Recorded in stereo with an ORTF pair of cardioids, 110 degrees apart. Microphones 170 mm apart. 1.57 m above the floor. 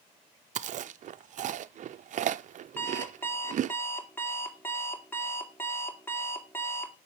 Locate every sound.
0.6 s chewing: 45° right, 0.6 m
2.8 s an alarm clock: 10° left, 2.5 m